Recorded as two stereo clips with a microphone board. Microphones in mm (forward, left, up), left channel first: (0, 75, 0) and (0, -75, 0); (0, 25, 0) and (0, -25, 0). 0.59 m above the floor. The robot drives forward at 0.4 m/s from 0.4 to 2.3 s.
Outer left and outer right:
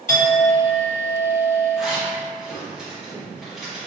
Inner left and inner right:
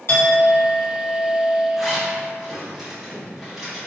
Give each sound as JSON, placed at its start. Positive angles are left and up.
{"t": 0.1, "sound": "a clink", "side_deg": 55, "distance_m": 1.2}
{"t": 1.8, "sound": "a zipper", "side_deg": -5, "distance_m": 0.9}